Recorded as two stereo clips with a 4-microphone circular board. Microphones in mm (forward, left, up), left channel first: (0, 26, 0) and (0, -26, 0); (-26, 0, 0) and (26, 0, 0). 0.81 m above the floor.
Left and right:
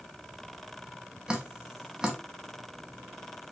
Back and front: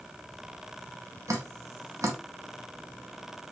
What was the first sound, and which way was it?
Dripping, 15° right.